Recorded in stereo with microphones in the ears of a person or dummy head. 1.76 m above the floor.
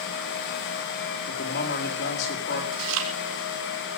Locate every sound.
1.3 s a man speaking: 60° left (ahead or behind), 4.5 m
2.7 s chewing: 80° right, 3.5 m